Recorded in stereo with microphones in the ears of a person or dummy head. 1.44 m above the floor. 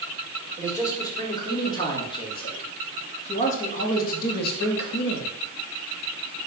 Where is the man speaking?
15° left (ahead or behind), 3.5 m; by 5.3 s 65° left (ahead or behind), 2 m.